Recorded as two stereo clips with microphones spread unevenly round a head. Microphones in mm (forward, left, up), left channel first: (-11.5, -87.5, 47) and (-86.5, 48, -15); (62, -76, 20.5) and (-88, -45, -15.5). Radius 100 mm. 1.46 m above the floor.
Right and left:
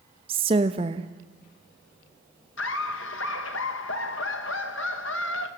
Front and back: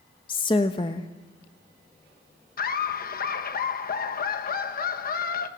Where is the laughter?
35° right, 2 m.